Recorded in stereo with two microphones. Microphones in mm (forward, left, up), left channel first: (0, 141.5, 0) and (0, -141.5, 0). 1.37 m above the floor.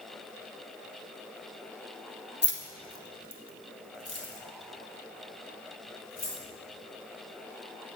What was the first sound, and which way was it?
Keys jangling, 35° left (ahead or behind).